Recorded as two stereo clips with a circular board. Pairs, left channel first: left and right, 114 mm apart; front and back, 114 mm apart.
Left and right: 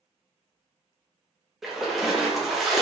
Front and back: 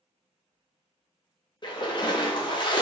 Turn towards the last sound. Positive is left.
turn(degrees=-5)